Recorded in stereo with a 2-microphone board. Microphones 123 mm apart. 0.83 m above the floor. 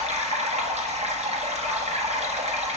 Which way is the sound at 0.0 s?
60° right (ahead or behind).